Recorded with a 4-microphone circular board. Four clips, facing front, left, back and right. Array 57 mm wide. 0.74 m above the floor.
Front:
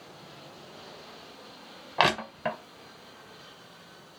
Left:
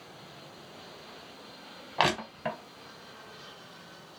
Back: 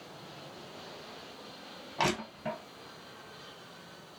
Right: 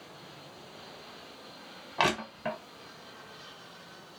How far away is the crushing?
About 0.8 m.